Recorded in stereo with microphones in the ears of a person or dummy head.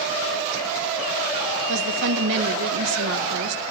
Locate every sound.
1.7 s a woman speaking: 70° right (ahead or behind), 1.8 m